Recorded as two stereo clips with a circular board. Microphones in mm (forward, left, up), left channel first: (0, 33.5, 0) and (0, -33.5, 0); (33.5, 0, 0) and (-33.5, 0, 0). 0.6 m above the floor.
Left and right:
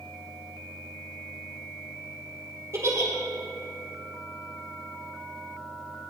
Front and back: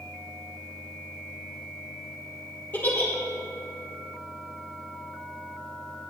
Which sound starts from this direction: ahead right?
A giggle, at 2.7 s.